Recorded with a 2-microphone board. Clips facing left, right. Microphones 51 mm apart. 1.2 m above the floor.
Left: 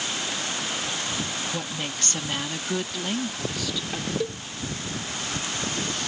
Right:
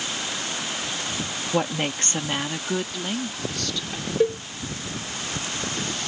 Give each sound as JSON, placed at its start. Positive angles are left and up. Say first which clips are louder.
{"t": 1.5, "sound": "a woman speaking", "louder": "right 7 dB", "side_deg": -50}
{"t": 4.2, "sound": "a cowbell", "louder": "right 8 dB", "side_deg": -30}